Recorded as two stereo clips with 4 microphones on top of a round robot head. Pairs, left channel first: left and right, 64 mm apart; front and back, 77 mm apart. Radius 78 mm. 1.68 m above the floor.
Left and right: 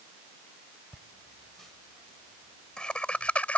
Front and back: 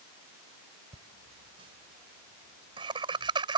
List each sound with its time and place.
0.9 s laughter: 175° right; by 3.6 s 160° left